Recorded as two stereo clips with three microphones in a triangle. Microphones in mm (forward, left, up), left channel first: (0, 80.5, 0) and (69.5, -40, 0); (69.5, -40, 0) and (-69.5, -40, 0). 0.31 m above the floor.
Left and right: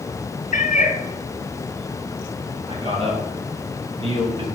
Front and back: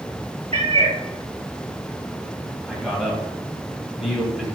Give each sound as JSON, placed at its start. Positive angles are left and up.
{"t": 0.5, "sound": "a cat meowing", "azimuth_deg": 140, "distance_m": 1.2}
{"t": 2.7, "sound": "a man speaking", "azimuth_deg": -95, "distance_m": 2.0}